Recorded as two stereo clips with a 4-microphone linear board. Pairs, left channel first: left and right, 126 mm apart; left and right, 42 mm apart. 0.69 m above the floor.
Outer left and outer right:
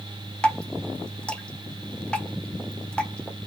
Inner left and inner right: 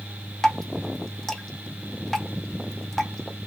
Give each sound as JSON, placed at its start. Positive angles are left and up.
{"t": 0.4, "sound": "dripping", "side_deg": 10, "distance_m": 0.8}